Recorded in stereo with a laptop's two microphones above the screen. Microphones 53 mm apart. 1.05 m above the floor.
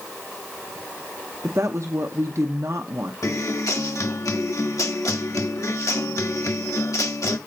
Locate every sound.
1.4 s a woman speaking: 60° right (ahead or behind), 0.8 m
3.2 s a guitar: 80° left, 1.1 m